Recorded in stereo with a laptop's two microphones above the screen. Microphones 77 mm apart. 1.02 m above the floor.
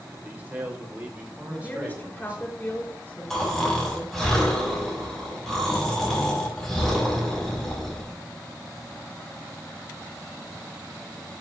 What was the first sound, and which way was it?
A man speaking, 20° right (ahead or behind).